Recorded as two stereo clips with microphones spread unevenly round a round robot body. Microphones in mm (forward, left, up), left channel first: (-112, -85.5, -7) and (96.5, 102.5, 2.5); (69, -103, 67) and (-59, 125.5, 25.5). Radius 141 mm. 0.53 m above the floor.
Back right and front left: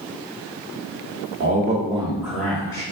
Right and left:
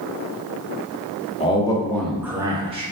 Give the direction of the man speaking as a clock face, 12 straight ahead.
12 o'clock.